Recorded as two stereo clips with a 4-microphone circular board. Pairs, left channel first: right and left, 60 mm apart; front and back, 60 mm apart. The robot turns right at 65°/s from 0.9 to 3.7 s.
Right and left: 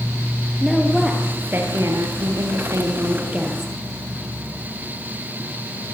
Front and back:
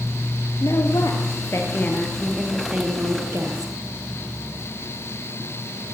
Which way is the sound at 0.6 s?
5° right.